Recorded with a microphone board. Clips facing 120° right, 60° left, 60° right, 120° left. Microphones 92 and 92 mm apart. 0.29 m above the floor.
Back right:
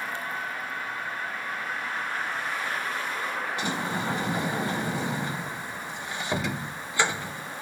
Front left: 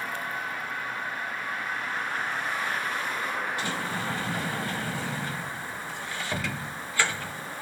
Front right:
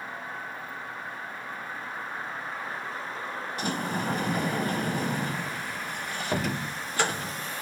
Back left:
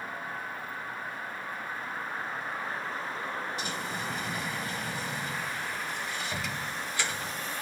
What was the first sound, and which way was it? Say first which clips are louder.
A sliding door: back right 2 dB, front right 5 dB; 55° right.